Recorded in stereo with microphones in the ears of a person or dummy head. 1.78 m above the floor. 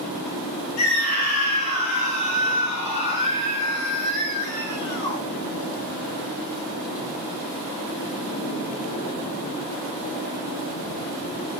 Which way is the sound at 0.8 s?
45° left (ahead or behind).